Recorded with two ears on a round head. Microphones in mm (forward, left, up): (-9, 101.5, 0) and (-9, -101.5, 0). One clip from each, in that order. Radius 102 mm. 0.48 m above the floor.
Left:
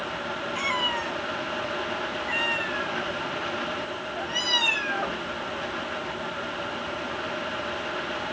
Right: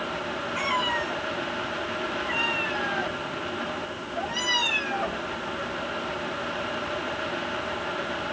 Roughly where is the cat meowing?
Left.